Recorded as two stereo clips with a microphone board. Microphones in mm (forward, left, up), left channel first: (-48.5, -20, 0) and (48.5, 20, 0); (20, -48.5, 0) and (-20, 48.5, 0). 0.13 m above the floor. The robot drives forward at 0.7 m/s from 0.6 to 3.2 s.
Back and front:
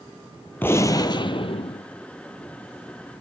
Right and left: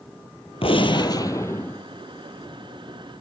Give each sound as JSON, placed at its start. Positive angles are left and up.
{"t": 0.6, "sound": "a gunshot", "azimuth_deg": -90, "distance_m": 0.7}